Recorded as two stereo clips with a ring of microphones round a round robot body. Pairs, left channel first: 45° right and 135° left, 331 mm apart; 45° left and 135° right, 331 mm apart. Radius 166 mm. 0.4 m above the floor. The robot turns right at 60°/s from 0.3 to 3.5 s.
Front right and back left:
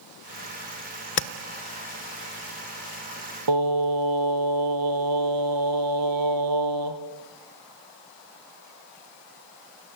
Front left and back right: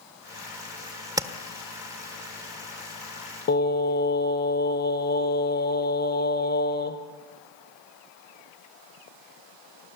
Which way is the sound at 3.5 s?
105° left.